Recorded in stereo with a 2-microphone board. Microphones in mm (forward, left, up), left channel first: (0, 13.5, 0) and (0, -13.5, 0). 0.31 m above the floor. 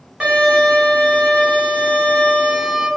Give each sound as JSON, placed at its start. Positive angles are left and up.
{"t": 0.2, "sound": "a violin", "side_deg": -35, "distance_m": 1.3}